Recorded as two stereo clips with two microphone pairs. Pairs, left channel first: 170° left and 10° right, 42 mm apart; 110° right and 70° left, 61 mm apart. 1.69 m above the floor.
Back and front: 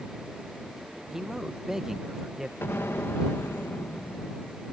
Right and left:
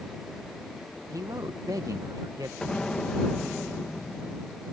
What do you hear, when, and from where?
1.1 s a man speaking: 65° left
2.6 s an explosion: 175° left